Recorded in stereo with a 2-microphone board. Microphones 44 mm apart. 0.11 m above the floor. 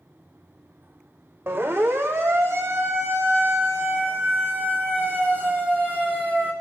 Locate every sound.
1.5 s a siren: 70° right (ahead or behind), 5.5 m; by 6.5 s 40° right (ahead or behind), 7 m